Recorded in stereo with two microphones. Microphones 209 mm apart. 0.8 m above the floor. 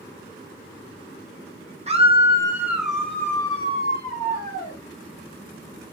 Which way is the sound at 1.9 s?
30° right (ahead or behind).